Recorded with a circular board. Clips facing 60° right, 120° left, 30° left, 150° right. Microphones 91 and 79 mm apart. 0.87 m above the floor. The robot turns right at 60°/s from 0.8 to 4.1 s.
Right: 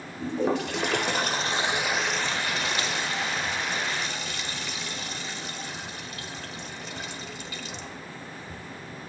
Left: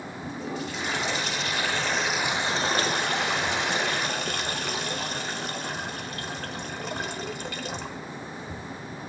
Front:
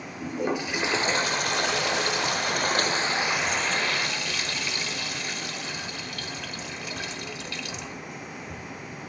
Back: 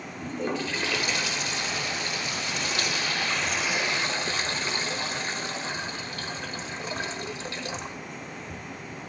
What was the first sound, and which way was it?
A toilet flushing, 45° right.